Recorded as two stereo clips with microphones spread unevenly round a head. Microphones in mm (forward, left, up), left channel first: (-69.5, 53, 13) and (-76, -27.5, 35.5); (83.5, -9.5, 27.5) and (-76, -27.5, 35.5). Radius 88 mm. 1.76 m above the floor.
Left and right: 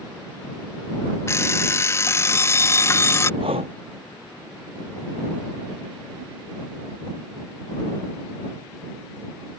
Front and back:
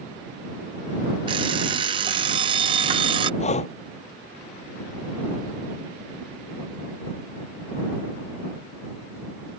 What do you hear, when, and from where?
1.3 s an alarm clock: 140° left
3.4 s breathing: 45° right